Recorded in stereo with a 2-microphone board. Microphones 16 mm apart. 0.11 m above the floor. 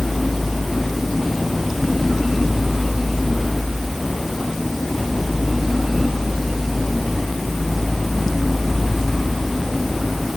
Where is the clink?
I don't hear a clink.